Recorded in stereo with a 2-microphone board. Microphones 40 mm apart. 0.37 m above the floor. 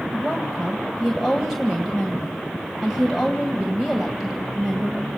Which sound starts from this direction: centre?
A woman speaking, at 0.1 s.